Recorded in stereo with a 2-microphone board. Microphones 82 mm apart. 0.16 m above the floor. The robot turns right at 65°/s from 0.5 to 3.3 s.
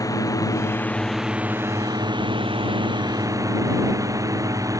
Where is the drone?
135° left; by 4.8 s 40° right.